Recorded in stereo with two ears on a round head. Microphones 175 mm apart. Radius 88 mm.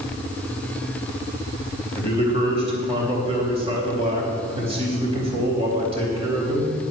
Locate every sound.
1.9 s a man speaking: 30° right (ahead or behind), 3.5 m